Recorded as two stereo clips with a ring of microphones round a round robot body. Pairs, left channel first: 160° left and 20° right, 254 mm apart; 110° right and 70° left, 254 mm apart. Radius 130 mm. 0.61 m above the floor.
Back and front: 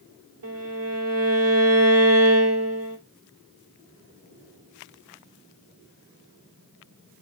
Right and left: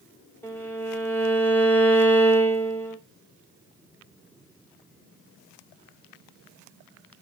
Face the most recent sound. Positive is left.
turn(degrees=-35)